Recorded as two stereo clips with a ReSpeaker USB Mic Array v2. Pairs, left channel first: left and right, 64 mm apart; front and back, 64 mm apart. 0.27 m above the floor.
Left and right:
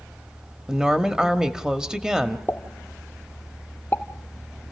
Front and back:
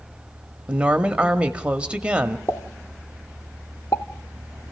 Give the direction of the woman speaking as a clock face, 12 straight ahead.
5 o'clock.